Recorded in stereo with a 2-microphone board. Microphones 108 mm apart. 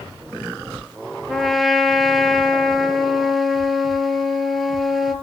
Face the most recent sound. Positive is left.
turn(degrees=0)  # may be behind; listen again after turning